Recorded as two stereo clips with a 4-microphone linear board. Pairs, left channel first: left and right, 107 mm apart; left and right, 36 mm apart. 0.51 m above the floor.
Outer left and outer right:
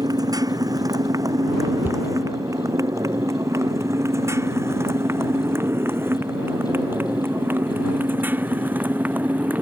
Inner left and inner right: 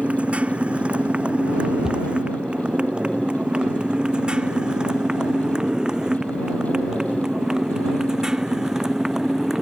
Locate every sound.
0.0 s a motorcycle: 35° right (ahead or behind); by 9.6 s 15° right (ahead or behind)
1.8 s a cupboard door: 20° right (ahead or behind)